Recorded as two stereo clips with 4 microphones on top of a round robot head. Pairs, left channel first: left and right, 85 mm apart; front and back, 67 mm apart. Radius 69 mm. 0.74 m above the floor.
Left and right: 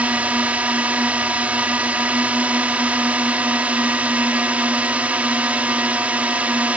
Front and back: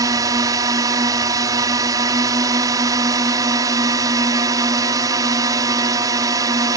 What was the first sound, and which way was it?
A drone, 165° right.